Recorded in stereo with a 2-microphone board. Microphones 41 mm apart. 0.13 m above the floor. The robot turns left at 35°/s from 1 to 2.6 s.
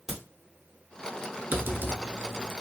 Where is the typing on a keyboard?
80° right, 0.6 m; by 2.5 s 115° right, 0.6 m.